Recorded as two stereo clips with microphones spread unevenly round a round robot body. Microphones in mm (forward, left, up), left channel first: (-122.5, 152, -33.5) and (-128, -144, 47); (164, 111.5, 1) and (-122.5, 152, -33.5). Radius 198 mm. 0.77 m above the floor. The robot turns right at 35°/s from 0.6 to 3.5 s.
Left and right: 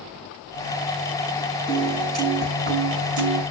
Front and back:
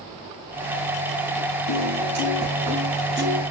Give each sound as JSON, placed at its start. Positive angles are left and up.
{"t": 1.7, "sound": "a piano", "azimuth_deg": -170, "distance_m": 5.0}